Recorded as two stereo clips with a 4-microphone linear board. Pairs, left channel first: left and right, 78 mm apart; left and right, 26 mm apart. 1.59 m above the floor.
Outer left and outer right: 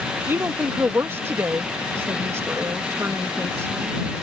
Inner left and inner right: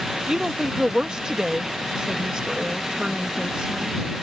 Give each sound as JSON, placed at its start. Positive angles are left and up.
{"t": 0.3, "sound": "a woman speaking", "side_deg": -30}